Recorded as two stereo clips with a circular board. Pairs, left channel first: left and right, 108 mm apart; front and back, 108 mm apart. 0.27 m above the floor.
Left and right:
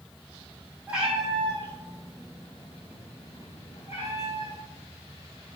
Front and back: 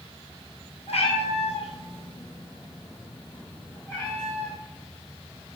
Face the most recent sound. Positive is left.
turn(degrees=85)